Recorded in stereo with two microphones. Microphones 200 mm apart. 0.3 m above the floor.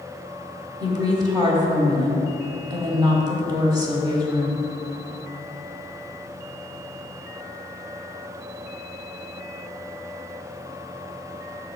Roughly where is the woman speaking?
Right.